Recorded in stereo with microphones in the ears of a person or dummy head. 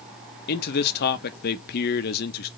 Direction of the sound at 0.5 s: 50° left (ahead or behind).